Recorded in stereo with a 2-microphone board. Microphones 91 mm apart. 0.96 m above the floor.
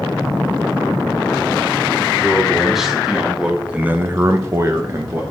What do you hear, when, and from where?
2.1 s a man speaking: centre (ahead or behind), 3.5 m; by 5.2 s 25° right (ahead or behind), 1.5 m